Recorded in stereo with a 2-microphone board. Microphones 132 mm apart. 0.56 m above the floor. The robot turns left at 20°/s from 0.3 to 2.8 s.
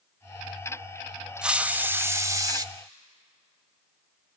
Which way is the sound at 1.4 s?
5° right (ahead or behind).